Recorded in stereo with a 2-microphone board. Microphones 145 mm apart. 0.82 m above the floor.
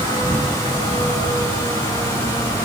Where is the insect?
40° right (ahead or behind), 7 m.